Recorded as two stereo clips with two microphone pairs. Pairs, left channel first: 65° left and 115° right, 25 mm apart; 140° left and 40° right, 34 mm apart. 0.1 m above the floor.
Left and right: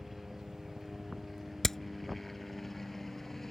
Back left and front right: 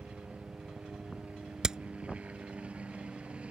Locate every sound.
0.0 s a helicopter: 25° right; by 3.5 s straight ahead
1.6 s hammering: 10° left